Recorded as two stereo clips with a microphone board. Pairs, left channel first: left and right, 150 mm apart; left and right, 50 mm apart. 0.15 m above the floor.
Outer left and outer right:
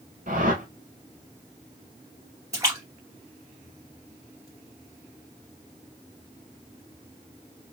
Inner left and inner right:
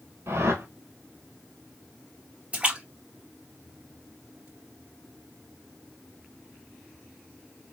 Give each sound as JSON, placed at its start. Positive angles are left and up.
{"t": 0.3, "sound": "a whoosh", "side_deg": -65, "distance_m": 1.4}
{"t": 2.5, "sound": "a splash", "side_deg": -20, "distance_m": 2.5}